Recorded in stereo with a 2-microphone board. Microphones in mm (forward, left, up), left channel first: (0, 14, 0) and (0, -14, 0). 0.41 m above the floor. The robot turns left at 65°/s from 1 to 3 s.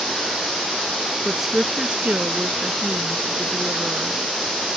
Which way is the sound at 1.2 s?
5° left.